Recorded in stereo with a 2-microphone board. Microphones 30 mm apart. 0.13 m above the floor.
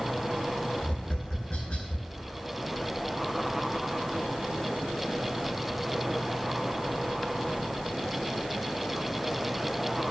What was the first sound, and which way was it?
Tapping, 45° left (ahead or behind).